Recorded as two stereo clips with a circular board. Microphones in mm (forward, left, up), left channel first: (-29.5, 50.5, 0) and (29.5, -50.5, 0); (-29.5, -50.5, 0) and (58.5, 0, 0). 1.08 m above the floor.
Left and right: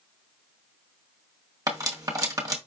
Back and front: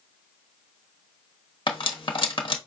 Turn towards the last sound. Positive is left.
turn(degrees=-120)